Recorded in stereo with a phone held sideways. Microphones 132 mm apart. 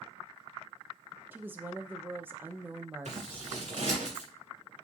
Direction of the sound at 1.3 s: 15° right (ahead or behind).